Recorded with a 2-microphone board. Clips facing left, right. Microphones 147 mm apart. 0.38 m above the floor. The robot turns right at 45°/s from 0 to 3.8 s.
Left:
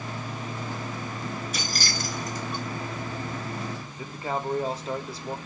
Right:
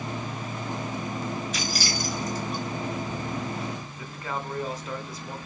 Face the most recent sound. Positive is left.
turn(degrees=30)  # may be behind; listen again after turning